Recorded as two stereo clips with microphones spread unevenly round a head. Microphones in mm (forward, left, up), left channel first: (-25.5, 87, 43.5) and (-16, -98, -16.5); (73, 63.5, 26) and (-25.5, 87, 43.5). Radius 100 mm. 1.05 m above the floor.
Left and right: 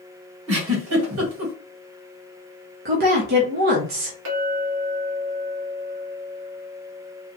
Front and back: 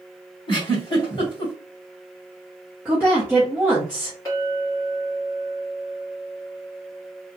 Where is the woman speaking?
115° right, 1.1 m.